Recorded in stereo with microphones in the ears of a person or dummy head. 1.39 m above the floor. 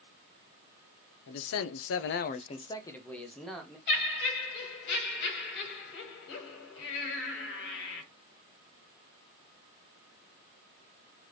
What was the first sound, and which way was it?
A man speaking, 65° left (ahead or behind).